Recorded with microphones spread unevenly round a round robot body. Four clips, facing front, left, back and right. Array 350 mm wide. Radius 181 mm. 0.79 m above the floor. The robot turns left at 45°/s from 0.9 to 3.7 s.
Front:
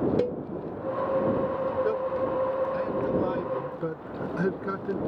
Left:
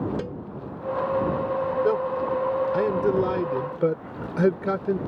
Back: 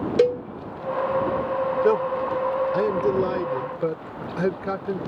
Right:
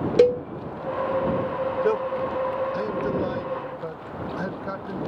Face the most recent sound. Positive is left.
turn(degrees=100)